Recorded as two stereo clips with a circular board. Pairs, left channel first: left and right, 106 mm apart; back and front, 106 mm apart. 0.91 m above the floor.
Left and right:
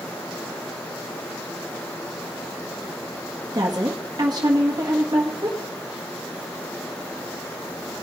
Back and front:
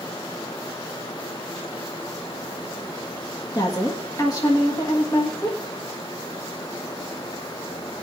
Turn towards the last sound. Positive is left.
turn(degrees=-135)